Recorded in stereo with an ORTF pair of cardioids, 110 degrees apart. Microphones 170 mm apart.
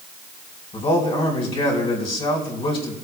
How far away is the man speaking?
About 4.5 m.